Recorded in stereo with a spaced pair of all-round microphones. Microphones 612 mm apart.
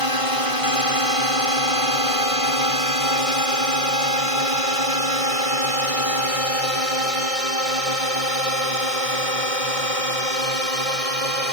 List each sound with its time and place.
0.0 s a drone: 60° right (ahead or behind); by 11.5 s 65° right (ahead or behind)